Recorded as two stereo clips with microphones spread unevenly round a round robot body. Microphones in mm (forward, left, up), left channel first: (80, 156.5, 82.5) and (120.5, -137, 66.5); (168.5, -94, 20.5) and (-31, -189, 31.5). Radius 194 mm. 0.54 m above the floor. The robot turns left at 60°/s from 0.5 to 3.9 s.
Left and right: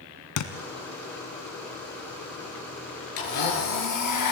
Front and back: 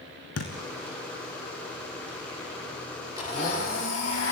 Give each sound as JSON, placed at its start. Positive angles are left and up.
{"t": 0.4, "sound": "a thud", "azimuth_deg": 75, "distance_m": 1.7}
{"t": 3.2, "sound": "a blender", "azimuth_deg": 125, "distance_m": 5.0}